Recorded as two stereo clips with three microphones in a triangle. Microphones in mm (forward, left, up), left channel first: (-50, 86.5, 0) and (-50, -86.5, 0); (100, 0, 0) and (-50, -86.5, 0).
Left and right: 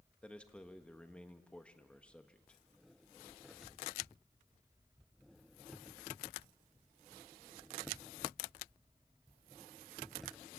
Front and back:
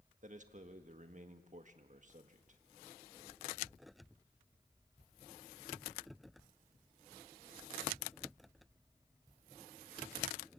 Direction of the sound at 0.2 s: 175° left.